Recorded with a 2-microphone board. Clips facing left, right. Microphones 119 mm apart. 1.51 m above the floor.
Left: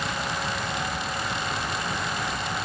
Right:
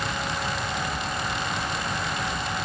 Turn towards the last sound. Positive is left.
No sound to turn to.